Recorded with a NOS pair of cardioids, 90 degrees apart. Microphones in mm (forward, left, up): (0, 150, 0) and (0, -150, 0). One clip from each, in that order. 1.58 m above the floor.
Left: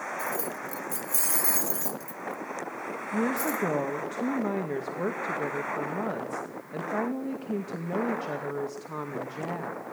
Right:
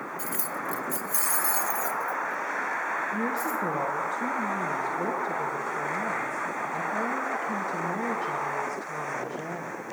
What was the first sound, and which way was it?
Keys jangling, 35° right.